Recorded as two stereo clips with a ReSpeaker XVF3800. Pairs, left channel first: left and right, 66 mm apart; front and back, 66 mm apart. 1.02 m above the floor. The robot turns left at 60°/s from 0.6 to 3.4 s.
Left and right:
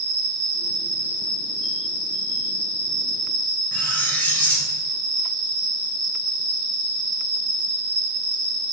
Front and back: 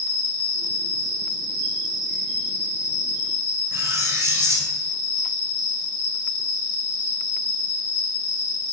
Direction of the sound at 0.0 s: 155° left.